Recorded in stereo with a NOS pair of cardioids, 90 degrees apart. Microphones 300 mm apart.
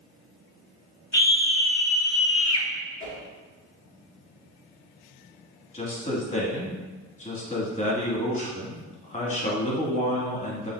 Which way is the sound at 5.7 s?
25° left.